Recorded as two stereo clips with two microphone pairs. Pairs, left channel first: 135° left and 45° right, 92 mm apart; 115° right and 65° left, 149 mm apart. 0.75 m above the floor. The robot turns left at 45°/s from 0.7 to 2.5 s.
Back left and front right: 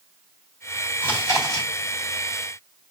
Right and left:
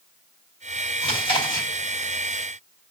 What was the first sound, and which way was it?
Chewing, 155° right.